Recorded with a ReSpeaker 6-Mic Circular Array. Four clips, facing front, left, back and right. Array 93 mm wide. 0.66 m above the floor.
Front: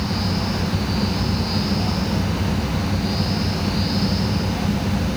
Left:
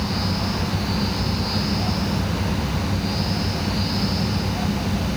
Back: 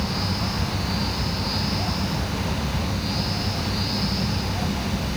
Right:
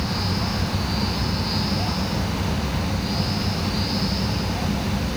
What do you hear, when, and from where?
Only background noise.